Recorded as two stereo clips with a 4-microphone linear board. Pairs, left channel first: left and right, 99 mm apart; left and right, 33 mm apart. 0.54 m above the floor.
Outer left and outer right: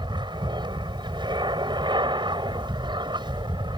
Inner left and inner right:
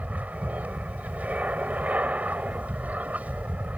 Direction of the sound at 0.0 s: 50° right (ahead or behind).